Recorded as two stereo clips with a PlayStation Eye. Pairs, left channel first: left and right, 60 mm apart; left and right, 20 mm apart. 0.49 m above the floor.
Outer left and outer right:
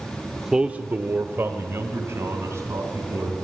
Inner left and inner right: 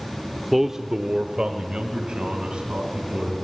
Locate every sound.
0.4 s a man speaking: centre (ahead or behind), 0.8 m; by 3.4 s 55° right (ahead or behind), 4.5 m